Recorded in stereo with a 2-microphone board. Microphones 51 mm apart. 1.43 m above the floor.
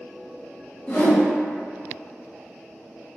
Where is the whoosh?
30° left (ahead or behind), 0.9 m.